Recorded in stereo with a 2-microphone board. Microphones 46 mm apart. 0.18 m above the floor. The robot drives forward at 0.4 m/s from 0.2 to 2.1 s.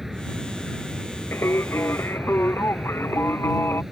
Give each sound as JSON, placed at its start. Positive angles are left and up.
{"t": 0.0, "sound": "an aircraft", "side_deg": -5}
{"t": 1.3, "sound": "singing", "side_deg": 70}